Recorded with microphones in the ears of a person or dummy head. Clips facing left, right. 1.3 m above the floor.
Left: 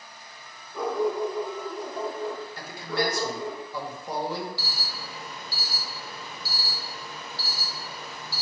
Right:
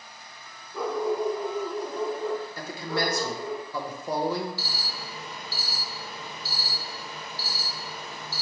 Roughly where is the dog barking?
Centre.